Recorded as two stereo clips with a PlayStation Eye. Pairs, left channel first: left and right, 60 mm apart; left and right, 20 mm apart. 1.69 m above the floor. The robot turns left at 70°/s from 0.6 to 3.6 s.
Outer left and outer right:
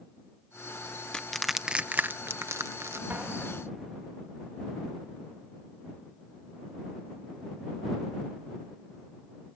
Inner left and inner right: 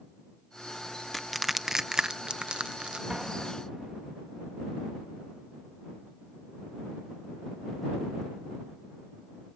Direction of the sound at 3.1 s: 35° right (ahead or behind).